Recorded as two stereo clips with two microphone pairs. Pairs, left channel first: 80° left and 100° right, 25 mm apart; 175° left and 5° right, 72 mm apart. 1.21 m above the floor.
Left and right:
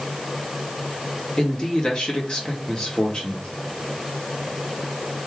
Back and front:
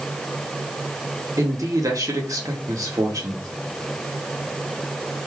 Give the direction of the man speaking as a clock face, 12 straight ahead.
11 o'clock.